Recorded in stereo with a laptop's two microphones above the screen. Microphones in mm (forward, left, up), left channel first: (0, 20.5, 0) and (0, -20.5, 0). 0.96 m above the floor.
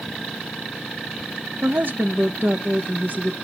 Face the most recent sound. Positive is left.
turn(degrees=-50)  # may be behind; listen again after turning